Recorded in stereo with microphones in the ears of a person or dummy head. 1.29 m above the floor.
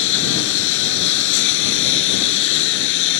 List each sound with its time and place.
0.0 s a lawn mower: 75° left (ahead or behind)